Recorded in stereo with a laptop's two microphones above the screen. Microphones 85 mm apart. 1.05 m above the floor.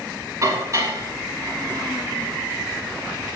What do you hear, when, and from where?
0.4 s dishes clattering: 40° right (ahead or behind), 6 m